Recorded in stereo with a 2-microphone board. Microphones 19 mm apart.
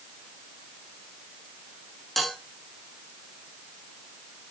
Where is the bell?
5° left (ahead or behind), 4 m.